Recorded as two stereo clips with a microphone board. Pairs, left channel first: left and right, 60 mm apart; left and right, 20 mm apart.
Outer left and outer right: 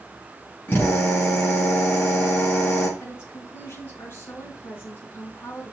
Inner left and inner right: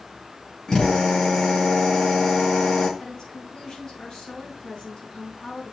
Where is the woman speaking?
35° left (ahead or behind), 4 m.